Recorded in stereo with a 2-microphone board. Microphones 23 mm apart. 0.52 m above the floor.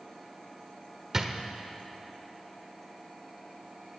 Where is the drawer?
20° right (ahead or behind), 1.0 m.